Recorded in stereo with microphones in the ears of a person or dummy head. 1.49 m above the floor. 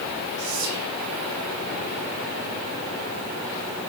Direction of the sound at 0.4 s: 75° right (ahead or behind).